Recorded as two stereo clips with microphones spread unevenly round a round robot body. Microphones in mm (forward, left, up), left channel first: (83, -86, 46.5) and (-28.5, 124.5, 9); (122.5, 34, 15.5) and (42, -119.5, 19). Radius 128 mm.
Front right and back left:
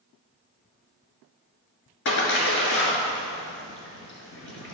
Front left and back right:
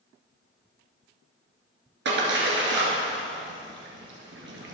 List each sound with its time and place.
2.0 s a splash: 110° right, 2.5 m